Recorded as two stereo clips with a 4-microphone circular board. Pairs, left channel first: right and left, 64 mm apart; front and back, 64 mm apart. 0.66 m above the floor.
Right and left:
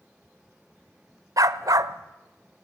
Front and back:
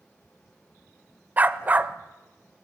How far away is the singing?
I don't hear singing.